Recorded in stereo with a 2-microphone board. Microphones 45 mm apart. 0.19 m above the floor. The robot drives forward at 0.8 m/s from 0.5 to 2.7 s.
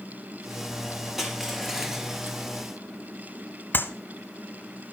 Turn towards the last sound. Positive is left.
turn(degrees=45)  # may be behind; listen again after turning